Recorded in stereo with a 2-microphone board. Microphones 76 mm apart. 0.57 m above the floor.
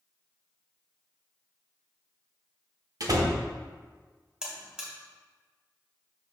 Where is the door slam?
55° right (ahead or behind), 1.0 m.